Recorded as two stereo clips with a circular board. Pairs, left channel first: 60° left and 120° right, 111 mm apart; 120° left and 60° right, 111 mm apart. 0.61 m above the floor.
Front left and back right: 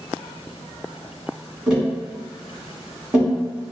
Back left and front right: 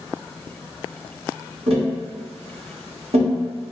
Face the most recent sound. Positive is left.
turn(degrees=-40)